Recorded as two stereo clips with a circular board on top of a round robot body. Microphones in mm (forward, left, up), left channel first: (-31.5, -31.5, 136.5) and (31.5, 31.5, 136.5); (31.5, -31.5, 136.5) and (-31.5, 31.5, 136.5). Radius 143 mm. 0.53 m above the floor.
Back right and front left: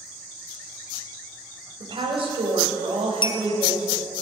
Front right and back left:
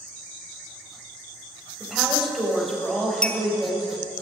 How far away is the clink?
About 0.8 m.